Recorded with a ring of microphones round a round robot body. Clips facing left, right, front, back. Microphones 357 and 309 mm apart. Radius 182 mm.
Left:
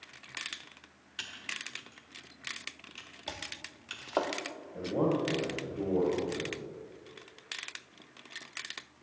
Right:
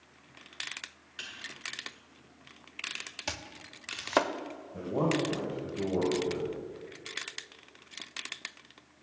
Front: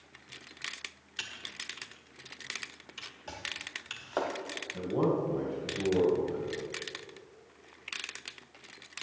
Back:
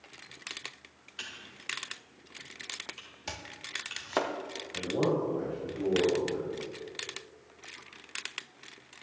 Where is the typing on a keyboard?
30° left, 1.4 m.